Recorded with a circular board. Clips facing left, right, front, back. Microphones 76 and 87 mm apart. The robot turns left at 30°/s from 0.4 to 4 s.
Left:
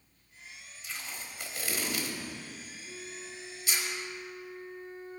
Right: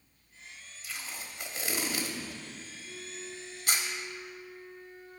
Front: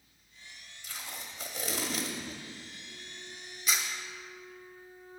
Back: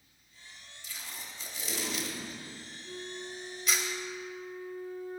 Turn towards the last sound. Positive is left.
turn(degrees=145)